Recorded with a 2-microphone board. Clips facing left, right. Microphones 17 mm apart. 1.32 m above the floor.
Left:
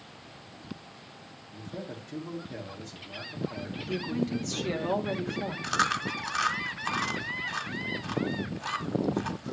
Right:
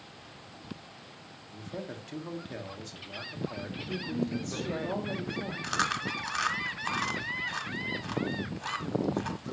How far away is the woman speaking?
About 2 m.